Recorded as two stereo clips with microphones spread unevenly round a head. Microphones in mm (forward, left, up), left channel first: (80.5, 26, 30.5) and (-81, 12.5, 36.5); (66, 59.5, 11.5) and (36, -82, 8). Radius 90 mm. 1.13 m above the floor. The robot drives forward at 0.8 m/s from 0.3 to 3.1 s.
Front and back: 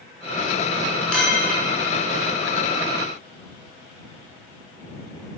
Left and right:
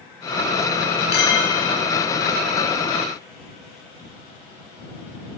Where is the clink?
90° left, 9 m.